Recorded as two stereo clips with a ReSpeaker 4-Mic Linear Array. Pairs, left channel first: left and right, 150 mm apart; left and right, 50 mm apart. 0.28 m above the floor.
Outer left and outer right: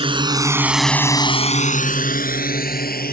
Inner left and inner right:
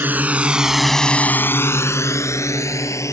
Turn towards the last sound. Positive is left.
turn(degrees=80)